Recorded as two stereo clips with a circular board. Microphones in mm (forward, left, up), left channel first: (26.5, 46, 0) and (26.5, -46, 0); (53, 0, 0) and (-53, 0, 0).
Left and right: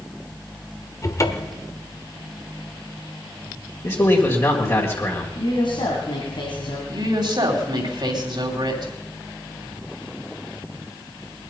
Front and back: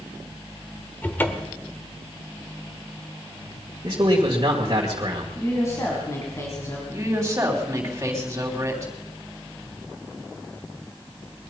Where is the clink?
I don't hear a clink.